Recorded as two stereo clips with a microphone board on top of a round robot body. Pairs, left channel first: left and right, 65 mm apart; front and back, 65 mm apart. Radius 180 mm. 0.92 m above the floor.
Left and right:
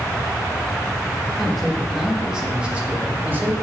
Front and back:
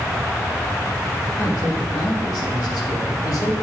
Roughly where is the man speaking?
Ahead.